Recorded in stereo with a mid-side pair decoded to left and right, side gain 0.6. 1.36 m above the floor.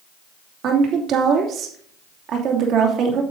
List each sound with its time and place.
0.6 s a woman speaking: 55° right, 2.5 m